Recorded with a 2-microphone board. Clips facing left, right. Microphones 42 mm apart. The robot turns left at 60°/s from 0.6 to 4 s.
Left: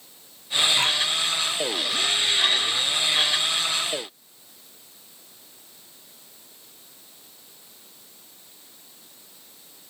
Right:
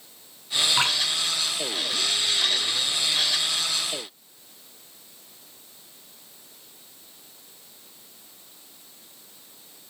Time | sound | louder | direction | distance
0.8 | dripping | even | 40° right (ahead or behind) | 6 m